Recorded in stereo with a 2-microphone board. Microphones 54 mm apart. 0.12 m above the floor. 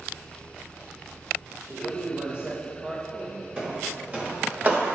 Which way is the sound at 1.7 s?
35° right (ahead or behind).